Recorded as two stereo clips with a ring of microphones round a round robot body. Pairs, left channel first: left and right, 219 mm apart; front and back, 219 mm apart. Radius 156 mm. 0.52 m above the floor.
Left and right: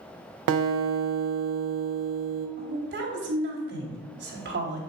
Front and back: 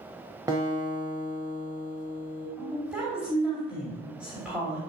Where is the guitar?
100° right, 0.7 m.